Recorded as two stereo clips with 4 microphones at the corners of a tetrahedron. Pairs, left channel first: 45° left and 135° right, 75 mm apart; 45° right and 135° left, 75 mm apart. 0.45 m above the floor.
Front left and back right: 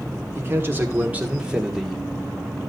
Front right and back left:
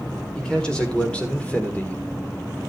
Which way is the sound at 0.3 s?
115° right.